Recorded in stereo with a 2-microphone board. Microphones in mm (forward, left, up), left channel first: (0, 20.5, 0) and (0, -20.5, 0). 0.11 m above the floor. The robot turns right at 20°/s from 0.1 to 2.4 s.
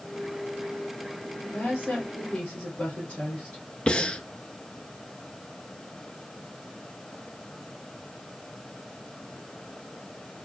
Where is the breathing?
25° left (ahead or behind), 0.5 m.